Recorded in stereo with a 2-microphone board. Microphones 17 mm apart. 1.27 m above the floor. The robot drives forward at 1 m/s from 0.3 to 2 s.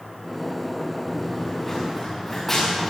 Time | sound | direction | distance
1.1 | running footsteps | 20° left (ahead or behind) | 5.5 m